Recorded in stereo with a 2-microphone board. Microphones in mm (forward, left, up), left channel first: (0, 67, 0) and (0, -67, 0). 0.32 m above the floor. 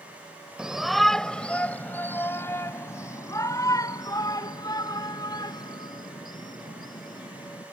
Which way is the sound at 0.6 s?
5° right (ahead or behind).